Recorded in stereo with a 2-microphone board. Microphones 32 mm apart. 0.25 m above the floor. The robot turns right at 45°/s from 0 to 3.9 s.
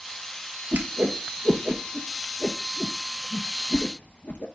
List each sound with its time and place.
0.7 s a whoosh: 70° right (ahead or behind), 0.9 m; by 4.5 s 75° left (ahead or behind), 0.9 m